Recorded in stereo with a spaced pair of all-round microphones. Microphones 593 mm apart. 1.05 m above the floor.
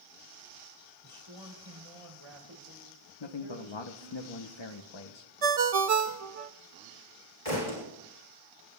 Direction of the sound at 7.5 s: 65° left (ahead or behind).